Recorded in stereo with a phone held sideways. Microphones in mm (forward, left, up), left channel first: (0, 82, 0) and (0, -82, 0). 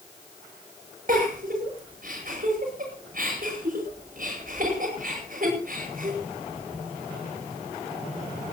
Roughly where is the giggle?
Right.